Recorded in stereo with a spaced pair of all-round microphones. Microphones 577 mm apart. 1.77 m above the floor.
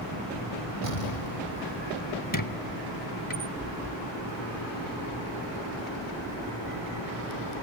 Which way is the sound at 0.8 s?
75° left (ahead or behind).